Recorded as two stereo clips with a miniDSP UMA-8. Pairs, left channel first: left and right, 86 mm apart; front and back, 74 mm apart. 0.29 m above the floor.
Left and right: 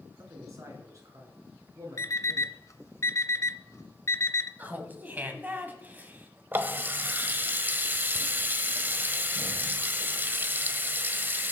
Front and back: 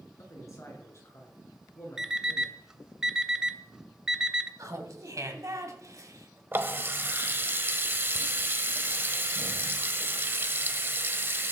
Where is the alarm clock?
105° left, 0.7 m.